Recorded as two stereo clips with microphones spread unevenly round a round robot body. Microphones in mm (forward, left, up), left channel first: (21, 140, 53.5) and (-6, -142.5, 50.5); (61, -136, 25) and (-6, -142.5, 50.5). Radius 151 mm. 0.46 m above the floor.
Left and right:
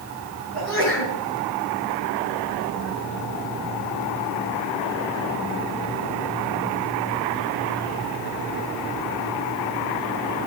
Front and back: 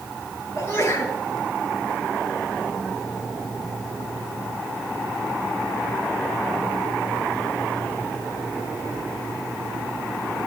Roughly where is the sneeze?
Ahead left.